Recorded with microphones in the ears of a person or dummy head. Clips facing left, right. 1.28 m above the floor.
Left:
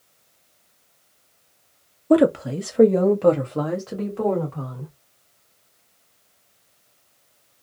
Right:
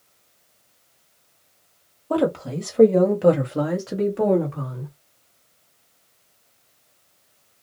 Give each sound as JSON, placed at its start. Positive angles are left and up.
{"t": 2.1, "sound": "a woman speaking", "side_deg": 25, "distance_m": 0.5}